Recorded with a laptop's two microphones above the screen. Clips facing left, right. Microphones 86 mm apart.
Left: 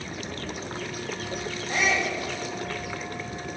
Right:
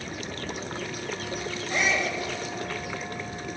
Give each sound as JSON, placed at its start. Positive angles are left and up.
{"t": 1.7, "sound": "a shout", "side_deg": 70, "distance_m": 4.0}